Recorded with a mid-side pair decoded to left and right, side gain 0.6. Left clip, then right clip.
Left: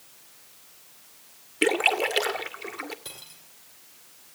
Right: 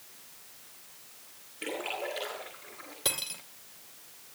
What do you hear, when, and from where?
1.6 s a splash: 70° left, 2 m
3.0 s cutlery clinking: 55° right, 2.5 m